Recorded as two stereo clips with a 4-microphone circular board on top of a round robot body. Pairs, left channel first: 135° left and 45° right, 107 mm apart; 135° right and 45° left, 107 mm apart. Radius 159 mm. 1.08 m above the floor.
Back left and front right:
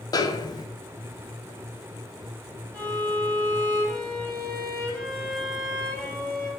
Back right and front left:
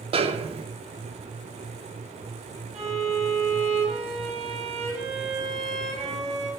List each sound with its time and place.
0.1 s a snare drum: 80° left, 0.7 m
2.7 s a violin: 55° left, 3 m